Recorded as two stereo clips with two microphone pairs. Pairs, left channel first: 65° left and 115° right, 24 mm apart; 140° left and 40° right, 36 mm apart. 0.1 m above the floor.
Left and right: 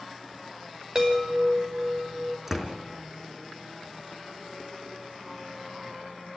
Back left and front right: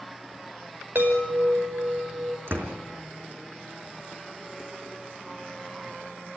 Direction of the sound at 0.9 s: 60° right.